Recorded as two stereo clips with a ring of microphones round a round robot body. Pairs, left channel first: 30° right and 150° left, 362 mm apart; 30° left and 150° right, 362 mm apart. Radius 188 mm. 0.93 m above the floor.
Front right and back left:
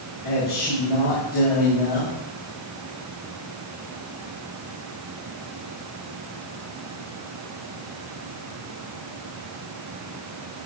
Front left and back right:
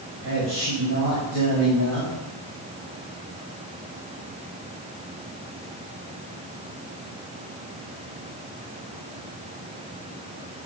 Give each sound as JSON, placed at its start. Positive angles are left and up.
{"t": 0.2, "sound": "a man speaking", "azimuth_deg": -95, "distance_m": 5.5}